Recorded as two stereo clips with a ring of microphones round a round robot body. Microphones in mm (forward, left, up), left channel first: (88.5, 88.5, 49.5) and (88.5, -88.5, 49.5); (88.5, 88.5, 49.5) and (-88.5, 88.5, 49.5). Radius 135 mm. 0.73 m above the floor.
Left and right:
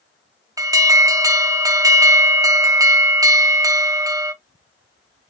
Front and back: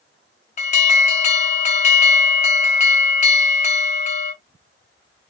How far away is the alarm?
About 0.8 m.